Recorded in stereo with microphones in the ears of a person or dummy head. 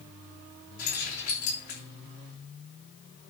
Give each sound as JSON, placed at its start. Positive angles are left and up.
{"t": 0.8, "sound": "keys jangling", "side_deg": 55, "distance_m": 3.5}